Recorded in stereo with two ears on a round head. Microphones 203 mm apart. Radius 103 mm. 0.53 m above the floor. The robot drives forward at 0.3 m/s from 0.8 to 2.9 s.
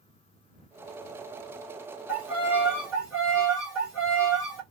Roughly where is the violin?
Centre.